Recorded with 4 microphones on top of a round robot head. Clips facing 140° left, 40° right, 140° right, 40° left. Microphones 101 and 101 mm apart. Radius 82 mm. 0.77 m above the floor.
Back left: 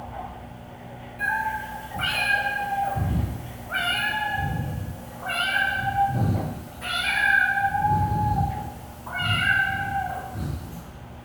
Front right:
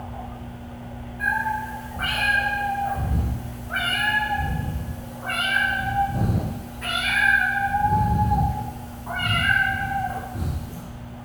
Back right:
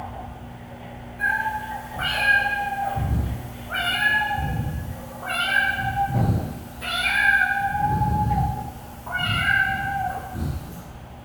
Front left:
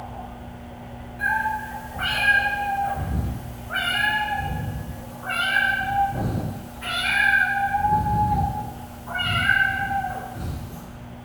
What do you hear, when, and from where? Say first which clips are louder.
1.2 s a cat meowing: front right 2 dB, front left 1 dB; 125° left, 1.9 m; by 10.8 s 135° right, 5 m